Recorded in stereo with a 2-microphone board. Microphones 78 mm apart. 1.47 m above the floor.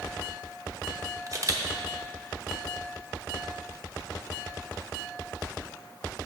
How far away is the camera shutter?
About 0.9 m.